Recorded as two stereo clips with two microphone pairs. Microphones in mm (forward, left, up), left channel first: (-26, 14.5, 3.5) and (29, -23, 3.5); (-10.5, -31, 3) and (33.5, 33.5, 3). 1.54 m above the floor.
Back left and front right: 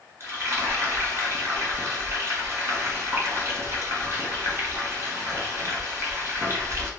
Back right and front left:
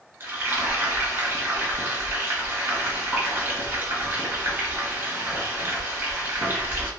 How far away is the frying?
About 1.3 m.